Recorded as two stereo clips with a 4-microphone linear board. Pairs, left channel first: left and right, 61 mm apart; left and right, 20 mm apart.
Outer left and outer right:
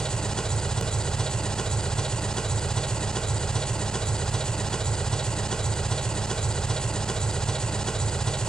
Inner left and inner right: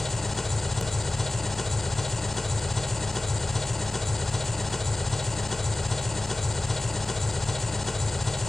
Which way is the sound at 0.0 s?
10° left (ahead or behind).